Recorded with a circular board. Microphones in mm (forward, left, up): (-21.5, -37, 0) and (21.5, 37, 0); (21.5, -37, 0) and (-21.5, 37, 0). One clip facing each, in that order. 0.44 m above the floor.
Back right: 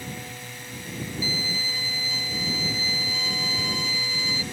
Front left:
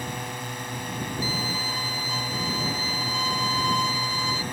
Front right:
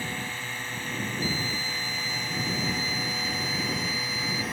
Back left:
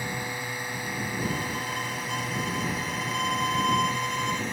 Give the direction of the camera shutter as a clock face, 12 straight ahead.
I don't hear a camera shutter.